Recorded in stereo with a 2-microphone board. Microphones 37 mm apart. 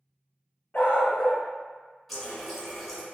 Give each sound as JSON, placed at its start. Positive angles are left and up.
{"t": 0.7, "sound": "a dog barking", "side_deg": 45, "distance_m": 0.7}
{"t": 2.1, "sound": "a running tap", "side_deg": 5, "distance_m": 1.4}